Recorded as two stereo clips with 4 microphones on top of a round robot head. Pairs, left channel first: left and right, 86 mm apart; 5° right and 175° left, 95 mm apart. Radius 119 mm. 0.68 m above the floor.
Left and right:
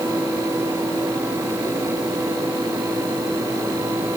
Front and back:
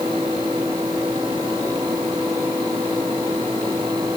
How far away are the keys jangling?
I don't hear keys jangling.